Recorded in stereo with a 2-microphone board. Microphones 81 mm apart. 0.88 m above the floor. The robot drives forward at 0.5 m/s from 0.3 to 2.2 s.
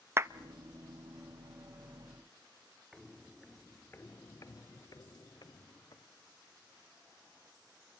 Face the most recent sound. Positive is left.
turn(degrees=60)  # may be behind; listen again after turning